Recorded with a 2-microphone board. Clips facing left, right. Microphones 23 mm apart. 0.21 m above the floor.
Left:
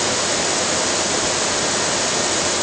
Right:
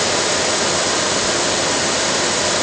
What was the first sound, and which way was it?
Only background noise.